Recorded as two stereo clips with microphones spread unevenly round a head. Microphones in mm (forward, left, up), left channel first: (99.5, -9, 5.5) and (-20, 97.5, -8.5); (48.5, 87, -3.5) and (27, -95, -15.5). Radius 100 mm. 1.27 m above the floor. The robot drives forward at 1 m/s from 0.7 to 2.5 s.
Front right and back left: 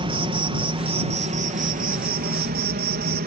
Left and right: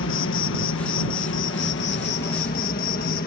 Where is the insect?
90° left; by 3.3 s 130° left.